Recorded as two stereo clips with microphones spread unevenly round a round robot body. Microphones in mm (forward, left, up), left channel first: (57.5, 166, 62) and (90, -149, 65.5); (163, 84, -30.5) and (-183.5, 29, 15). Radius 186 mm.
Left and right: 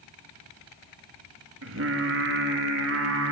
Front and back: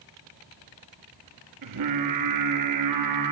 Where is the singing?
130° right, 1.7 m.